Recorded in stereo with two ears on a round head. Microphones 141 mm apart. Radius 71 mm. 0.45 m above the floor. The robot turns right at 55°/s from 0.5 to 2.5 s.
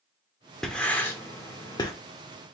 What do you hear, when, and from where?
0.6 s writing: 5° left (ahead or behind), 0.8 m; by 1.9 s 25° left (ahead or behind), 0.8 m